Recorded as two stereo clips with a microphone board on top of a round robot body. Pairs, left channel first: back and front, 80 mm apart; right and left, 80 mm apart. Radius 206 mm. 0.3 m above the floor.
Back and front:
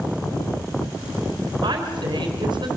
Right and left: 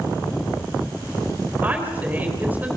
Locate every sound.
1.6 s a woman speaking: 20° left, 4 m